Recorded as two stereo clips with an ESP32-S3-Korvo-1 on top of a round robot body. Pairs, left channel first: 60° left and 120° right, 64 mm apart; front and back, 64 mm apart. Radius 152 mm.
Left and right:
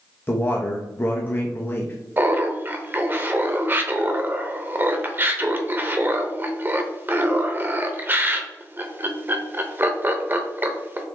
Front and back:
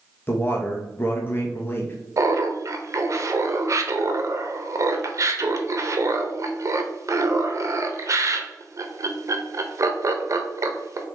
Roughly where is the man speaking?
Ahead left.